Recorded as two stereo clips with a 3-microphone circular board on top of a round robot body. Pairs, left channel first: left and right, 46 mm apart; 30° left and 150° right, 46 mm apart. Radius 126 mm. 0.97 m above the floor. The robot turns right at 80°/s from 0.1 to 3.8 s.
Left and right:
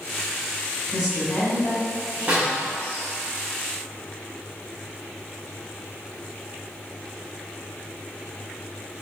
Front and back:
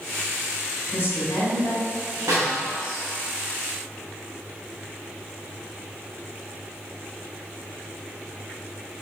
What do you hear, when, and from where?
0.9 s a woman speaking: 25° right, 1.7 m; by 3.0 s 145° left, 1.7 m
2.3 s a snare drum: 145° right, 0.5 m; by 2.6 s 120° right, 0.5 m